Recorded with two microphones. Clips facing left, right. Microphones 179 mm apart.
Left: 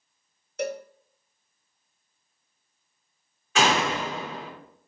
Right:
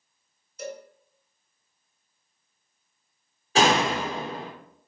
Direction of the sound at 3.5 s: 35° right (ahead or behind).